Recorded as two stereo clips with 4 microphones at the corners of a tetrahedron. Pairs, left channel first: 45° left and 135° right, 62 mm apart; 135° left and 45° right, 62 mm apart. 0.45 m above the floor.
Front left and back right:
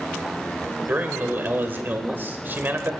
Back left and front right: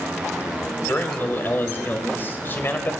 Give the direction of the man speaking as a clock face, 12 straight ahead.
6 o'clock.